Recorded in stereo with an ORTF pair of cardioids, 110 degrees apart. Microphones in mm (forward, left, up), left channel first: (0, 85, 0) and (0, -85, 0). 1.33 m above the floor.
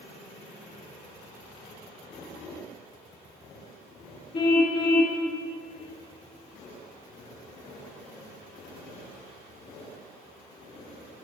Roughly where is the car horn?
Ahead left.